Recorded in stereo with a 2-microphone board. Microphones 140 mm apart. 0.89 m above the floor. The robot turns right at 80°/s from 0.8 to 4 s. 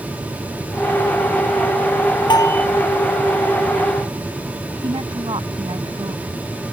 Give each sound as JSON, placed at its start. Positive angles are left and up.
{"t": 2.3, "sound": "a bell", "side_deg": 35}
{"t": 4.8, "sound": "a woman speaking", "side_deg": -35}